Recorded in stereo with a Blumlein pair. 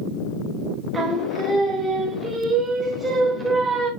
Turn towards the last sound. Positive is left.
turn(degrees=-15)